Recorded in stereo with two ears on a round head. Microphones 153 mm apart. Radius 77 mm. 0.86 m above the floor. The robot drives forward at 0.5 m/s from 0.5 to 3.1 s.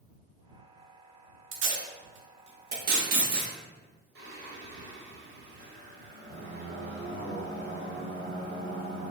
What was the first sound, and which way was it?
Tape being pulled, 85° right.